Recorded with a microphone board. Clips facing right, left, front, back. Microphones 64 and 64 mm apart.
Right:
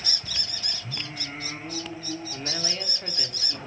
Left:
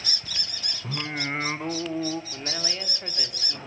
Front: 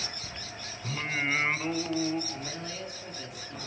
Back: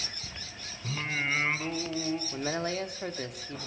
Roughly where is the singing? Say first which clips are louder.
Left 10 dB, front 1 dB; left.